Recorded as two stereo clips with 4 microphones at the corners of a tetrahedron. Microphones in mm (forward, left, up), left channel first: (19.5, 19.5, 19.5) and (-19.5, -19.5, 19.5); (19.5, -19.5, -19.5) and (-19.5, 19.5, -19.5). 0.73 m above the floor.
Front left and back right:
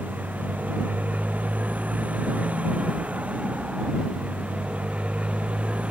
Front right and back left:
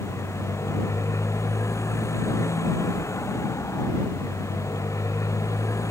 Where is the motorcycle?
75° right; by 5.9 s 65° right.